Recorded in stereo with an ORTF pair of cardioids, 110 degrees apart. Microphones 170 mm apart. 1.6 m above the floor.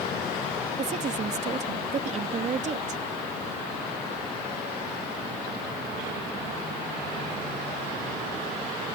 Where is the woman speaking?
40° right.